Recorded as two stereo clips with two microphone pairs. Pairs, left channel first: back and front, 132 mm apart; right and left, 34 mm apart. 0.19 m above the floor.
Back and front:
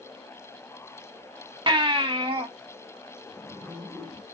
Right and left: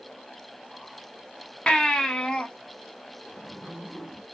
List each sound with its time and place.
1.7 s a baby crying: 35° right, 0.7 m
3.3 s a zipper: 25° left, 2.0 m